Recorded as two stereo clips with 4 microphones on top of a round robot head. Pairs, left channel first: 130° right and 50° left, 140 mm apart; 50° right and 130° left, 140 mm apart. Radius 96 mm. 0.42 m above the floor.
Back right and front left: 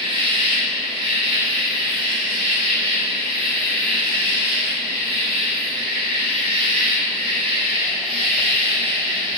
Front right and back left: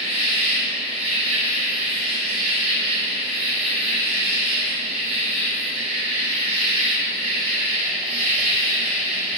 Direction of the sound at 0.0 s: 95° left.